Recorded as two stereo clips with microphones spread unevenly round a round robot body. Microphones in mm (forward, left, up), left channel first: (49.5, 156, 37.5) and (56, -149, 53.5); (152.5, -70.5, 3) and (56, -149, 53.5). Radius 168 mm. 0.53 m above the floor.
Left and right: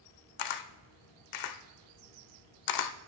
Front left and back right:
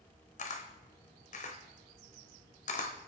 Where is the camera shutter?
75° left, 0.8 m.